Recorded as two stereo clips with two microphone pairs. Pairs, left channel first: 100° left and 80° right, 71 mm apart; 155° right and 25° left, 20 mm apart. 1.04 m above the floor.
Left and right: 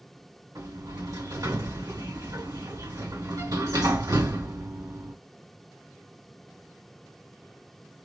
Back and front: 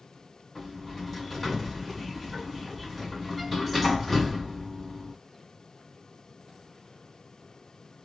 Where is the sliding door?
65° right, 2.0 m.